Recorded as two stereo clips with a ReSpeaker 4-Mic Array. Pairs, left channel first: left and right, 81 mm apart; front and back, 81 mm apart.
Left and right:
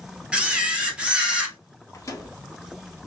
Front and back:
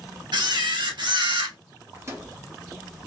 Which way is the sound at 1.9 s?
130° left.